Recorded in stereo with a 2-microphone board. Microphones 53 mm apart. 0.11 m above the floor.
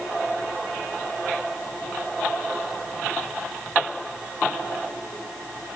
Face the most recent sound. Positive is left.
No sound to turn to.